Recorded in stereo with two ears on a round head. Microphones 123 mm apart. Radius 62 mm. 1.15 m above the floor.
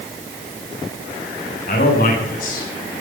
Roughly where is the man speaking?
Left.